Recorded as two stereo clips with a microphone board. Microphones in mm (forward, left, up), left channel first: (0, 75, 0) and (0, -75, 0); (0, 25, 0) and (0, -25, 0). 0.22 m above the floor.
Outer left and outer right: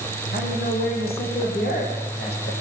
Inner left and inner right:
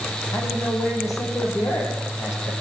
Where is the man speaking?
75° left (ahead or behind), 10 m; by 2.5 s 80° left, 9.5 m.